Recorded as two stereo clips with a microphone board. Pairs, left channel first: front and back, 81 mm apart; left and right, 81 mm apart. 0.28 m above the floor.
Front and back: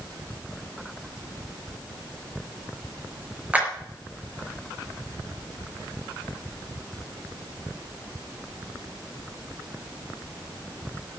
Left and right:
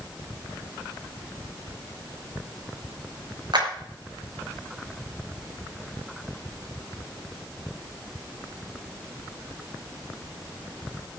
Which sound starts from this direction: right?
A clap, at 3.5 s.